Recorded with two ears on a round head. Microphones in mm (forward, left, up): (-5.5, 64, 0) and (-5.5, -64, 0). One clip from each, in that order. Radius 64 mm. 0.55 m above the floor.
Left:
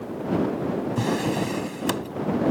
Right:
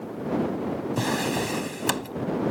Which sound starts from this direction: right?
A drawer, at 1.0 s.